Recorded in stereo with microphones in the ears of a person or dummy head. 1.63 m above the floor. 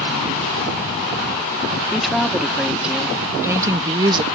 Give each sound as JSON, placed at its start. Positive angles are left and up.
{"t": 1.9, "sound": "a woman speaking", "side_deg": 0}